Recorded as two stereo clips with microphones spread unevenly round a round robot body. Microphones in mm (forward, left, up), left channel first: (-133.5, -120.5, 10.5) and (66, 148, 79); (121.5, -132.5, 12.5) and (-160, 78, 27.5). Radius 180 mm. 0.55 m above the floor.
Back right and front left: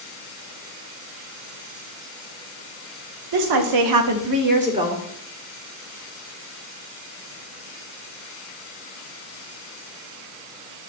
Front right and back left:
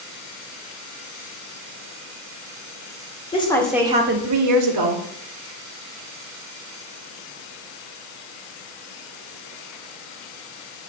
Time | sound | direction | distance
3.3 | a woman speaking | 35° left | 1.7 m